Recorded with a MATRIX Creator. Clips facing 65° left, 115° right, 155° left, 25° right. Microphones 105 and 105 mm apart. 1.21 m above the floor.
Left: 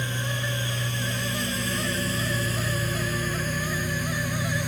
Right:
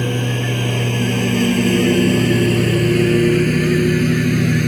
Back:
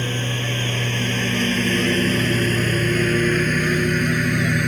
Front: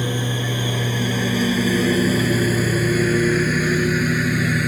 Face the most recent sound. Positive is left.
turn(degrees=-110)